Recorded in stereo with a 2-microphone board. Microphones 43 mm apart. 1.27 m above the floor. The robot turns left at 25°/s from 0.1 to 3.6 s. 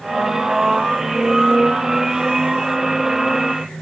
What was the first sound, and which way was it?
Only background noise.